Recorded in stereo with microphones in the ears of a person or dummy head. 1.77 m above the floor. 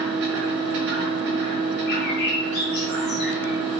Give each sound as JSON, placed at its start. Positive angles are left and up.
{"t": 0.0, "sound": "a machine running", "side_deg": -45, "distance_m": 1.0}
{"t": 1.9, "sound": "a bird", "side_deg": 50, "distance_m": 1.8}